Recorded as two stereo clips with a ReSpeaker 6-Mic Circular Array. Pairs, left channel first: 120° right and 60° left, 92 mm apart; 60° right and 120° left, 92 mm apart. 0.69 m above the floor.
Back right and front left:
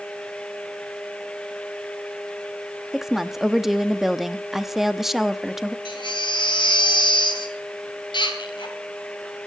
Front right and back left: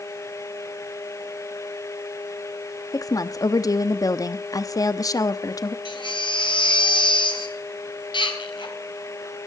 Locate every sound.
2.9 s a woman speaking: 25° right, 0.7 m
5.8 s a baby crying: 90° right, 2.5 m